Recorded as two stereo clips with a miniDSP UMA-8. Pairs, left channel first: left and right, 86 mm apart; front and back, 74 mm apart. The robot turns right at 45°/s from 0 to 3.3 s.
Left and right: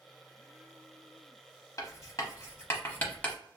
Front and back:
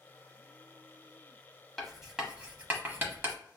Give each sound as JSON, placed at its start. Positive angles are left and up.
{"t": 1.8, "sound": "writing", "azimuth_deg": 85, "distance_m": 0.7}